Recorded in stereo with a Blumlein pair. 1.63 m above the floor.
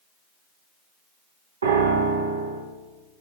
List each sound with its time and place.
1.6 s a piano: 70° right, 1.4 m